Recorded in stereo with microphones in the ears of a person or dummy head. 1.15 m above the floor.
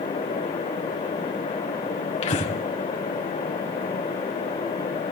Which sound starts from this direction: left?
Breathing, at 2.2 s.